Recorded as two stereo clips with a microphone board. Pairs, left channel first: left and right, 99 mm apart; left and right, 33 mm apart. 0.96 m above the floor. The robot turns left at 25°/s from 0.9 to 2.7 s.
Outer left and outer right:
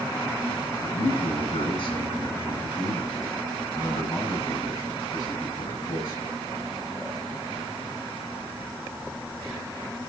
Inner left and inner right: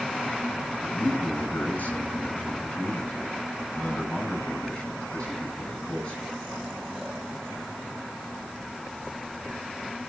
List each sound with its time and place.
0.8 s a man speaking: 90° left, 9 m; by 6.3 s 45° left, 9 m